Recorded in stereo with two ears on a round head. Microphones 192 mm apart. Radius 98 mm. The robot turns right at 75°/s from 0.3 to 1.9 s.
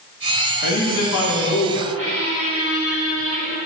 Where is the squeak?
30° right (ahead or behind), 1.1 m.